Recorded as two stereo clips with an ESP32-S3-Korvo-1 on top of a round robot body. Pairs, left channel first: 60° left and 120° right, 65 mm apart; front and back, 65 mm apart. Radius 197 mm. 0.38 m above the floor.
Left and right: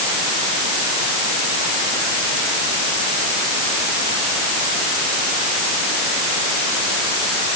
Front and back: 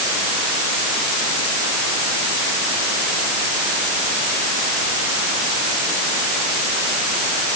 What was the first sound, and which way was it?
Only background noise.